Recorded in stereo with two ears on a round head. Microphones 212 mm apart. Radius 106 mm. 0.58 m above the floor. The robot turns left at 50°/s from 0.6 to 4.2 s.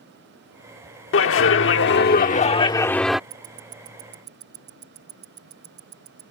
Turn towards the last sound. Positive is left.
turn(degrees=-45)  # may be behind; listen again after turning